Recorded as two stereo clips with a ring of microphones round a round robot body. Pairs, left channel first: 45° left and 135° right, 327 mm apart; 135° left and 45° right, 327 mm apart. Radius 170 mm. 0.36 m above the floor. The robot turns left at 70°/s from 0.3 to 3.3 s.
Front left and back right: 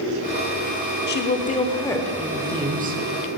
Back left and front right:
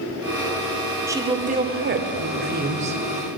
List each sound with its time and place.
1.1 s a woman speaking: 30° left, 0.9 m; by 3.0 s 105° right, 0.9 m